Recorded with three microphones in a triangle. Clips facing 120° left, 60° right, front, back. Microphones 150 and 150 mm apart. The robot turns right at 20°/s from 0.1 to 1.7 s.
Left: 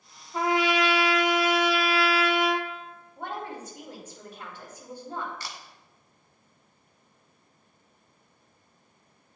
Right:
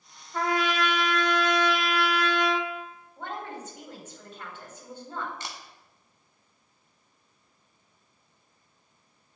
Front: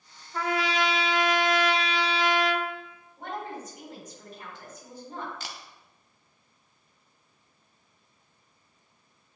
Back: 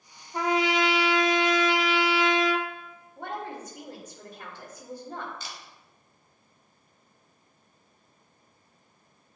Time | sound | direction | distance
0.3 | a trumpet | 165° left | 0.9 m
3.2 | a woman speaking | 165° right | 3 m
5.4 | a camera shutter | 5° left | 1.1 m